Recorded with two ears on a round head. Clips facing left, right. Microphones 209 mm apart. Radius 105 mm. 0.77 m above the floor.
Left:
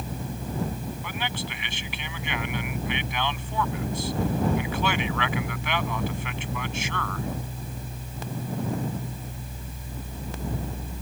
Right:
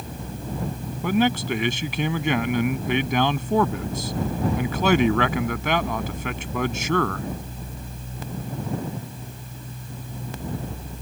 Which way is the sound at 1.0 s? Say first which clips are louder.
Right 13 dB; 40° right (ahead or behind).